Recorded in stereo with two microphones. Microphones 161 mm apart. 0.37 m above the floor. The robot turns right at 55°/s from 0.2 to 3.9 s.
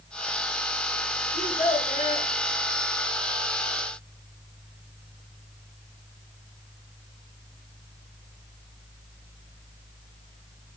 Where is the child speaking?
85° left, 3.5 m; by 2.3 s 135° left, 3.5 m.